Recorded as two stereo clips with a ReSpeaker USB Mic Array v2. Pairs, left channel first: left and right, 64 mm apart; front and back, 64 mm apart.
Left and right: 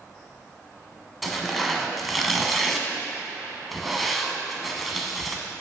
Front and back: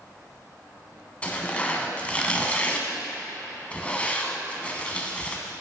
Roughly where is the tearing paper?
Ahead.